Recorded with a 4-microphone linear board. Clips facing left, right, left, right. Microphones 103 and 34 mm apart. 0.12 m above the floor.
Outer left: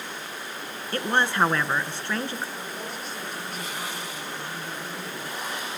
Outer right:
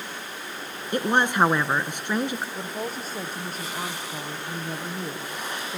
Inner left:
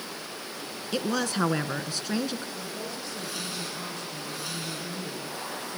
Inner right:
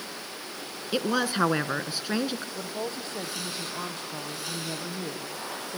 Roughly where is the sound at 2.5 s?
Right.